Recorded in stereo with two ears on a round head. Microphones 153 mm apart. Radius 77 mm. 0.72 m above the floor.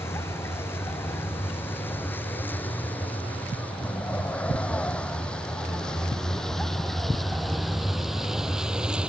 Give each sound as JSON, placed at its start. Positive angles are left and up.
{"t": 0.0, "sound": "a vehicle", "side_deg": 15}